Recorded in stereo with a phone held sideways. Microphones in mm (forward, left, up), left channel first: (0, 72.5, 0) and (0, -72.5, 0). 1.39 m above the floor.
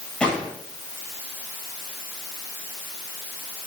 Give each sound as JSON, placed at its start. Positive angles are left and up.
{"t": 0.2, "sound": "a gunshot", "side_deg": 5, "distance_m": 9.0}